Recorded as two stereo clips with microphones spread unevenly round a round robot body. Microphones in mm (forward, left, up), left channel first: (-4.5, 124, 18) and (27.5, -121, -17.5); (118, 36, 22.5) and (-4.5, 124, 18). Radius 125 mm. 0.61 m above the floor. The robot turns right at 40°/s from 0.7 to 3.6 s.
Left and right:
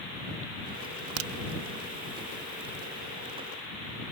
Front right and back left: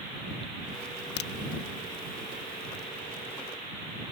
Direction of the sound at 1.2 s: 50° right.